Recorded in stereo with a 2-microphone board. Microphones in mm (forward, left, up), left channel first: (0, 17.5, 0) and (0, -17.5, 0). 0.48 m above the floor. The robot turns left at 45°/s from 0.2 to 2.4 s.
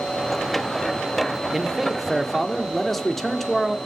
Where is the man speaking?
5° right (ahead or behind), 1.3 m; by 3.8 s 5° left (ahead or behind), 1.3 m.